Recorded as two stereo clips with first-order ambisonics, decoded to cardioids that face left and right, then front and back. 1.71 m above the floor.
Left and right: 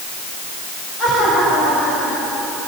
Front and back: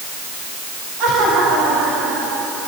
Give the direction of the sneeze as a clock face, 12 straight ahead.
No sneeze in this recording.